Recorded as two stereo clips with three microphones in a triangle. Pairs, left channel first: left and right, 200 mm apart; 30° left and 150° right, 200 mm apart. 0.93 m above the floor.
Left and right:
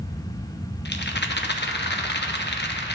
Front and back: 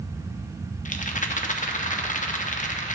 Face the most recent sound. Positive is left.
turn(degrees=75)